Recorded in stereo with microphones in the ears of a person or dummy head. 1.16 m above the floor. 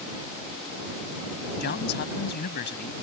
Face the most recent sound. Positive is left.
turn(degrees=55)  # may be behind; listen again after turning